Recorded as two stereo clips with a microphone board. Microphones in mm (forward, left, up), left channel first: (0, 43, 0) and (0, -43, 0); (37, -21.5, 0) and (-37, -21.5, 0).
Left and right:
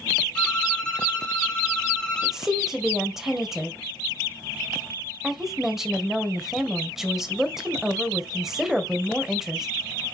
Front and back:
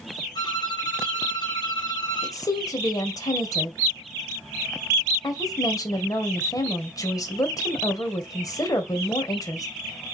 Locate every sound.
0.3 s a violin: 10° left, 2.5 m
2.2 s a woman speaking: 5° right, 1.8 m